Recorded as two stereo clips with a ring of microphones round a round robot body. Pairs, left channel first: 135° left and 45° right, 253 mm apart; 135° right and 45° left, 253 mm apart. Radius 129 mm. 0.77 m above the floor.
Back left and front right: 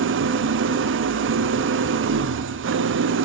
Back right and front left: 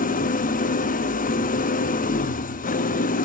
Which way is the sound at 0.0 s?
80° right.